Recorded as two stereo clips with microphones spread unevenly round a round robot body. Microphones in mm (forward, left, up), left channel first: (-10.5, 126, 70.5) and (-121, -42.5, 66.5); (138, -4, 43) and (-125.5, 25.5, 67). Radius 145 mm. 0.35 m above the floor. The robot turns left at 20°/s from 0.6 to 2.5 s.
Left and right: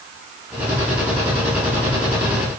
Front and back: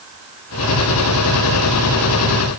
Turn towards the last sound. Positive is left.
No sound to turn to.